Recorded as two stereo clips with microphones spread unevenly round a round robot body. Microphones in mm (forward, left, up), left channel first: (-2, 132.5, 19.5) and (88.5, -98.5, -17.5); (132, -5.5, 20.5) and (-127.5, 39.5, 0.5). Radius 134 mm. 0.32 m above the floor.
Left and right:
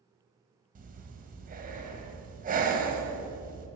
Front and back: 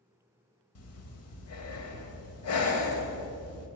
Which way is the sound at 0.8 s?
30° right.